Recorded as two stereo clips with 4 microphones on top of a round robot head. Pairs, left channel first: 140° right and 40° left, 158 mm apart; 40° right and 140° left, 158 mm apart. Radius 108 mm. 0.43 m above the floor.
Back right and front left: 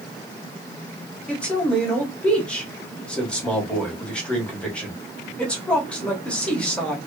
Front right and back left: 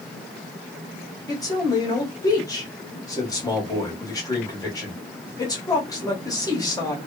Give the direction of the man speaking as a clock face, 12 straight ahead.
2 o'clock.